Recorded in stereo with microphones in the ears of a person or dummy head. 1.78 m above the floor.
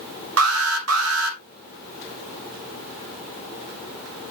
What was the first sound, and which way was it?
An alarm, 80° right.